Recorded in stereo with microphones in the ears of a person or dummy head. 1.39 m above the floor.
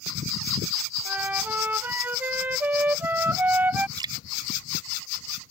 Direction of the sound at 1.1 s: 10° right (ahead or behind).